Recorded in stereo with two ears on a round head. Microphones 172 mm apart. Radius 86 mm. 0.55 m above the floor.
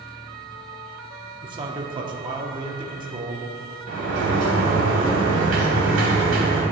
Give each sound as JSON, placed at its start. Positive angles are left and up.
{"t": 1.4, "sound": "a man speaking", "side_deg": -25, "distance_m": 0.7}
{"t": 3.9, "sound": "a sliding door", "side_deg": -70, "distance_m": 1.5}